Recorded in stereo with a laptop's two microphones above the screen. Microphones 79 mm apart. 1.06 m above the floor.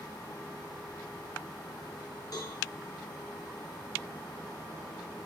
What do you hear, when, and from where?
2.3 s a cowbell: 50° left (ahead or behind), 3.5 m